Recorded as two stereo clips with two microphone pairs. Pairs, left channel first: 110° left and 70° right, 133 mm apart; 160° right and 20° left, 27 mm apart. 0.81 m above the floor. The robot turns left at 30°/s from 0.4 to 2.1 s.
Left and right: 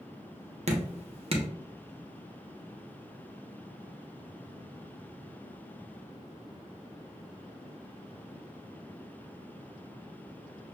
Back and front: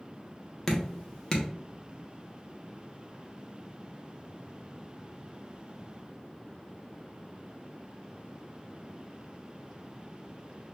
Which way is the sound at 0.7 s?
90° right.